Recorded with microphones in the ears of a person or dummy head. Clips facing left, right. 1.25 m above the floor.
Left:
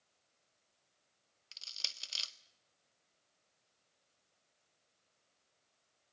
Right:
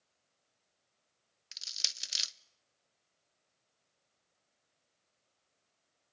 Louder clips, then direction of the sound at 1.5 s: Right 2 dB; 20° right (ahead or behind).